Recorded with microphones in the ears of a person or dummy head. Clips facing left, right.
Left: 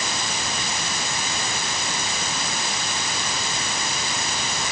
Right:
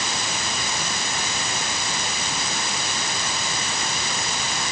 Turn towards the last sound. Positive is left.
No sound to turn to.